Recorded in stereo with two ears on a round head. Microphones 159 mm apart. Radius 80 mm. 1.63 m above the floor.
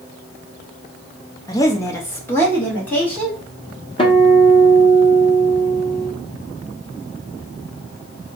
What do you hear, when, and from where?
1.5 s a woman speaking: 20° left (ahead or behind), 0.9 m; by 3.4 s 10° left (ahead or behind), 2 m
4.0 s a guitar: 30° left (ahead or behind), 0.9 m